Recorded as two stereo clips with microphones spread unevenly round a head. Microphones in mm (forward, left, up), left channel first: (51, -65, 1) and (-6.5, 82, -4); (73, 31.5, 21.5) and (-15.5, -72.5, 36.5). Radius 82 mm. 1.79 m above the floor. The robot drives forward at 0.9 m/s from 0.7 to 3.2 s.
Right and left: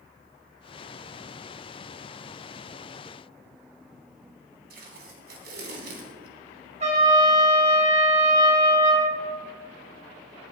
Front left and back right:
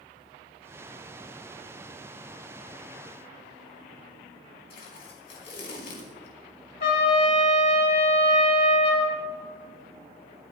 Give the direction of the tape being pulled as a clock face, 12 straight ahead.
9 o'clock.